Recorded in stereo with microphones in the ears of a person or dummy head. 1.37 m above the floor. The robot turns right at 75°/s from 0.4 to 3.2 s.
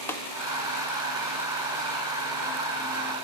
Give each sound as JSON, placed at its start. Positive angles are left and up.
{"t": 0.1, "sound": "tapping", "side_deg": 10, "distance_m": 1.7}